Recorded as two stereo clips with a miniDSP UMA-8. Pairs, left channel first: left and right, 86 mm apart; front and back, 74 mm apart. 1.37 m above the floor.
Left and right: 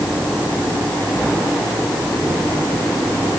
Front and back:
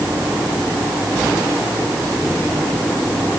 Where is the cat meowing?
I don't hear a cat meowing.